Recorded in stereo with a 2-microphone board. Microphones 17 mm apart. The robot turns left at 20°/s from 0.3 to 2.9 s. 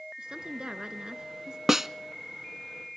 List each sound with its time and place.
0.2 s a woman speaking: 50° right (ahead or behind), 1.7 m; by 1.6 s 45° right (ahead or behind), 1.7 m
1.7 s a snare drum: 20° right (ahead or behind), 0.6 m